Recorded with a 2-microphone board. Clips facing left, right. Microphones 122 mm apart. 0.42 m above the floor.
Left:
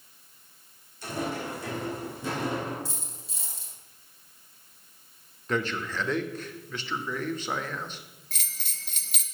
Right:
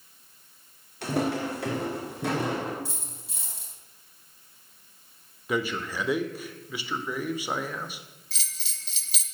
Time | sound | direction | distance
1.0 | footsteps | 70° right (ahead or behind) | 1.8 m
2.9 | a dropped coin | 55° right (ahead or behind) | 4.5 m
5.5 | a man speaking | 10° right (ahead or behind) | 0.8 m
8.3 | a bell | 50° left (ahead or behind) | 1.0 m